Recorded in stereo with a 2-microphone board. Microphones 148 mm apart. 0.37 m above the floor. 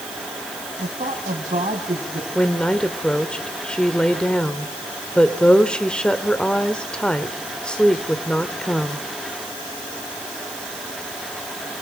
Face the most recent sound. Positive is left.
turn(degrees=5)  # may be behind; listen again after turning